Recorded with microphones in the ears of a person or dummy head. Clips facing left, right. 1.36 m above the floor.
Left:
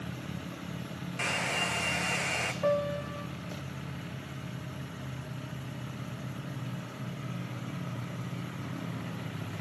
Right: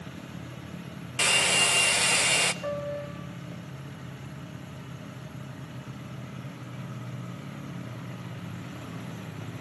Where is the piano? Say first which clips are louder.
Left 8 dB; 55° left (ahead or behind), 1.1 m.